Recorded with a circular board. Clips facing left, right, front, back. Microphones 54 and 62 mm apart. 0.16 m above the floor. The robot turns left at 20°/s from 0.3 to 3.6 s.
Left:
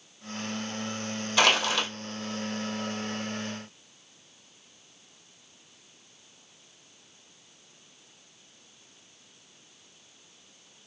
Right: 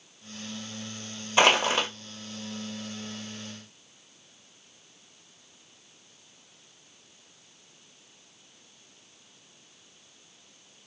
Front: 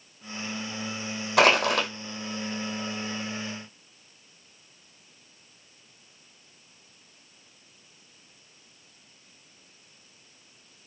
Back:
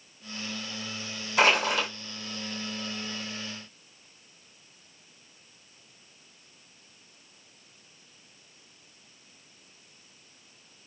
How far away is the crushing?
About 1.2 m.